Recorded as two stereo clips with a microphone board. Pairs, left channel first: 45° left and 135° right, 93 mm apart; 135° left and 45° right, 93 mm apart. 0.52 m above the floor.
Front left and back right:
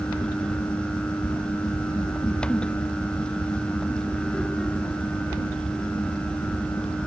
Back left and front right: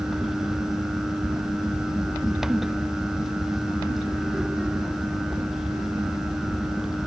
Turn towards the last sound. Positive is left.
No sound to turn to.